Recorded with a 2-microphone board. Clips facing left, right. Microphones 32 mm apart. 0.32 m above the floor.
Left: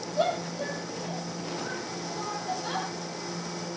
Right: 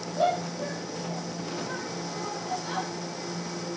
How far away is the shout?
About 9 m.